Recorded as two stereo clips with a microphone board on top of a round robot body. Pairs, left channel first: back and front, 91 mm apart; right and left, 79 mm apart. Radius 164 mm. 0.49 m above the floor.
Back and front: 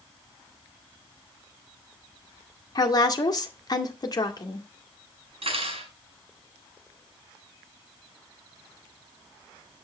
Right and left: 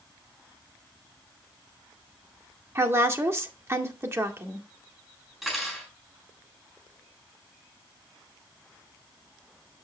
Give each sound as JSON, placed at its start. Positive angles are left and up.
{"t": 2.8, "sound": "a woman speaking", "azimuth_deg": 140, "distance_m": 2.0}
{"t": 5.4, "sound": "cutlery clinking", "azimuth_deg": 5, "distance_m": 5.0}